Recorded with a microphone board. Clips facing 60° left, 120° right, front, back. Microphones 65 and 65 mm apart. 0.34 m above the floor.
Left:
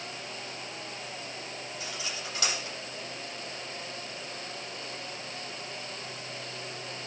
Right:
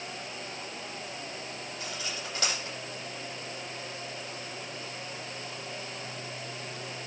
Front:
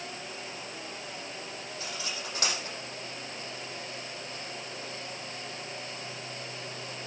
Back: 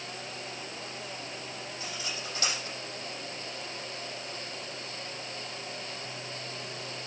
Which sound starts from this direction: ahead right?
Cutlery clinking, at 1.8 s.